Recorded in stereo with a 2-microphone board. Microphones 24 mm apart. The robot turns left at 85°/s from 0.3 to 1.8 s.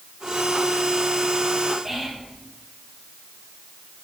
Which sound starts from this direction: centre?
Whispering, at 1.9 s.